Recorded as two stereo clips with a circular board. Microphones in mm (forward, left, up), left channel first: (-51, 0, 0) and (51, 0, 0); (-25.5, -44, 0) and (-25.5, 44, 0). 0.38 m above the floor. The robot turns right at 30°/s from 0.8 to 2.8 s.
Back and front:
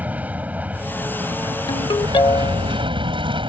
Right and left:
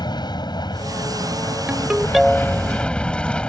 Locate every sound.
0.0 s an aircraft: 75° right; by 3.5 s 15° right
1.7 s a ringtone: 165° left; by 2.7 s 165° right